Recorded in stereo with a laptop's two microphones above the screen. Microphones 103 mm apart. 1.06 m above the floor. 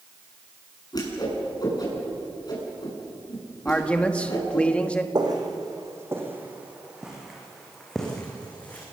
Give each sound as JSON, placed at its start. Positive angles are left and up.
{"t": 0.9, "sound": "a whoosh", "side_deg": 40, "distance_m": 7.5}
{"t": 3.6, "sound": "a man speaking", "side_deg": 10, "distance_m": 1.3}
{"t": 5.2, "sound": "footsteps", "side_deg": -40, "distance_m": 3.0}